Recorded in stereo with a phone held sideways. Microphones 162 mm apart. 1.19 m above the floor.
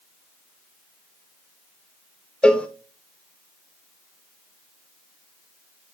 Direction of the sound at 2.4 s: 5° left (ahead or behind).